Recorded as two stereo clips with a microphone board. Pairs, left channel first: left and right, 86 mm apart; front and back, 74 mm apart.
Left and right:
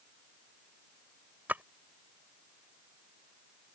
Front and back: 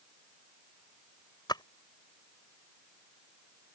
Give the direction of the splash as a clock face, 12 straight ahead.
1 o'clock.